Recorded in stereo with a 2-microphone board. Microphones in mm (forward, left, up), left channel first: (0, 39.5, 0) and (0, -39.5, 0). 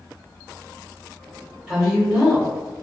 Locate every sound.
1.7 s a woman speaking: 5° right (ahead or behind), 1.5 m